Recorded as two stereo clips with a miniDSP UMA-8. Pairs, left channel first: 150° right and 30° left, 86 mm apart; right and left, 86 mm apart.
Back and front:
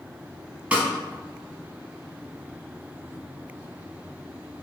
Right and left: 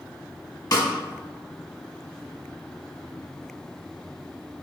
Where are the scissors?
No scissors in this recording.